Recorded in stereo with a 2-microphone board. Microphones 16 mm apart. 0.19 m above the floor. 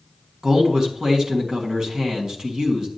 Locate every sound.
0.4 s a man speaking: 40° right (ahead or behind), 1.7 m